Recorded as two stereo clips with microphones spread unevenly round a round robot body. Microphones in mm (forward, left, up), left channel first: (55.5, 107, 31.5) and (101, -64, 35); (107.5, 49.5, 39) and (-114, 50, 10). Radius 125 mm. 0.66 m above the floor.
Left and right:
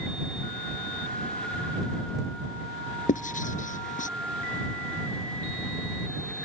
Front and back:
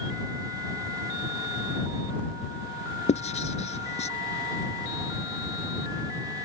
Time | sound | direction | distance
3.1 | writing | 60° left | ?